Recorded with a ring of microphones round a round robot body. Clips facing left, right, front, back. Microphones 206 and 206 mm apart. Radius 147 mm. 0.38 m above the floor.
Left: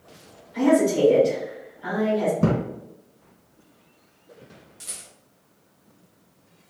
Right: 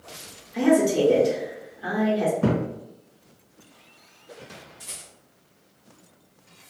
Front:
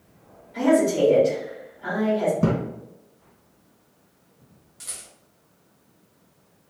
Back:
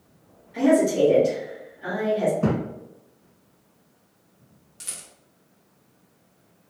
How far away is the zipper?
I don't hear a zipper.